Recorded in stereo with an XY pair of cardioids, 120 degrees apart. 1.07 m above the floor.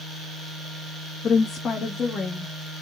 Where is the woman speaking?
50° left, 1.4 m; by 2.8 s 25° left, 2 m.